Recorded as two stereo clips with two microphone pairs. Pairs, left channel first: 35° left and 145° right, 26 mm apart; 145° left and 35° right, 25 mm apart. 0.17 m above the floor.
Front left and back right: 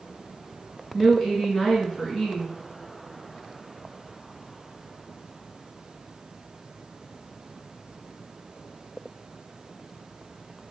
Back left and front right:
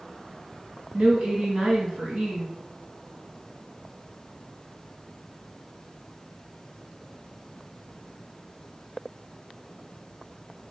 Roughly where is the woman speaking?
Ahead right.